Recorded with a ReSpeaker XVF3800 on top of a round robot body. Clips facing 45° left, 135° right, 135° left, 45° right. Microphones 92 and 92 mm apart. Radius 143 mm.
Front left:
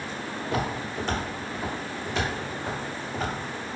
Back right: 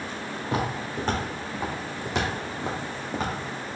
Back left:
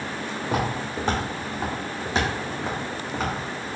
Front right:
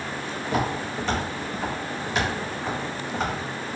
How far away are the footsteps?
About 1.9 m.